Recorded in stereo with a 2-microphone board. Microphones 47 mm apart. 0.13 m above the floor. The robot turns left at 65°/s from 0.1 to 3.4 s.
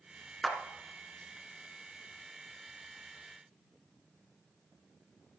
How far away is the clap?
About 1.5 m.